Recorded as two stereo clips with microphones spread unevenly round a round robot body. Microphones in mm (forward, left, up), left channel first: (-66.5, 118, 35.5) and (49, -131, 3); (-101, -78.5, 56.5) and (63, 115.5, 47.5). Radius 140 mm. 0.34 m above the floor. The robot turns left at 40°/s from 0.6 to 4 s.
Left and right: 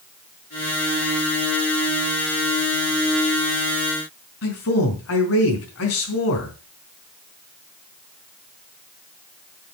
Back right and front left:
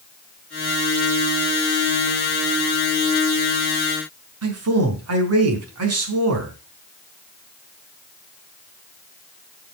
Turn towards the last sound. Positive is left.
turn(degrees=70)